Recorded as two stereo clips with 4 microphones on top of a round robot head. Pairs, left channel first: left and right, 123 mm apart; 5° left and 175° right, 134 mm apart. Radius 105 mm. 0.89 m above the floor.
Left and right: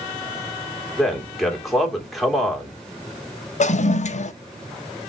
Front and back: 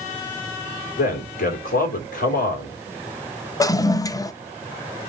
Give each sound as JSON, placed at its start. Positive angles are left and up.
{"t": 1.0, "sound": "a man speaking", "azimuth_deg": 0, "distance_m": 2.0}
{"t": 3.6, "sound": "a toilet flushing", "azimuth_deg": 70, "distance_m": 0.6}